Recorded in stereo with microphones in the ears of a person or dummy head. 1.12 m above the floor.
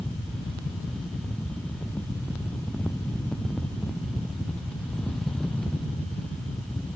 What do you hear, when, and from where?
Only background noise.